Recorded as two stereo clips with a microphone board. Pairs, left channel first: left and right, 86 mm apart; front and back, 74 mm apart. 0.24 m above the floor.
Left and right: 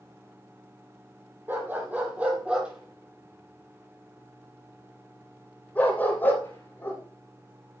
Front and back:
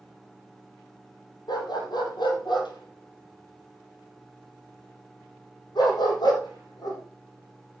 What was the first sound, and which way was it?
A dog barking, 25° right.